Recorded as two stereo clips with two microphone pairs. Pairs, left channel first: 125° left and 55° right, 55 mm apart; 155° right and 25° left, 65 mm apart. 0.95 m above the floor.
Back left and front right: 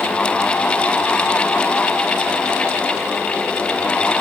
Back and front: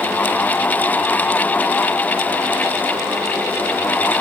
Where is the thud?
No thud in this recording.